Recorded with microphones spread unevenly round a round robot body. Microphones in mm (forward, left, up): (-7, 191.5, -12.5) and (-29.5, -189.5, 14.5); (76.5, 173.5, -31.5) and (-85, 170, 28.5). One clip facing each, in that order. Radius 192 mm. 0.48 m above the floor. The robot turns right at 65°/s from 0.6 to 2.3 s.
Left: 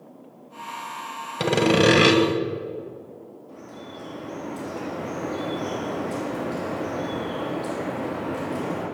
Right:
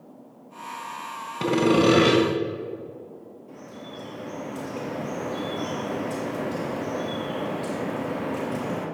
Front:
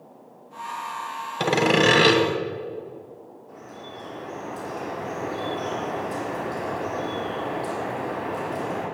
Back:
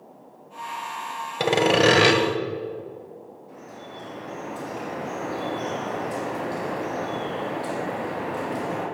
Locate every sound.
1.4 s sawing: 95° left, 1.6 m; by 2.2 s 145° left, 1.6 m
3.5 s dripping: 135° right, 3.5 m